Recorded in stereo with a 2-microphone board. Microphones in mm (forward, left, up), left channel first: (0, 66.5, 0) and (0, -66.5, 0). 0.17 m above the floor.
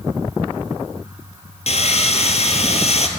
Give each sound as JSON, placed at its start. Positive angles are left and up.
{"t": 1.7, "sound": "sawing", "side_deg": 55, "distance_m": 1.3}